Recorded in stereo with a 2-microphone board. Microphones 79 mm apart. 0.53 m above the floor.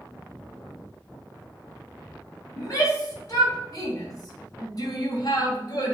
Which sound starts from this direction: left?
A shout, at 2.6 s.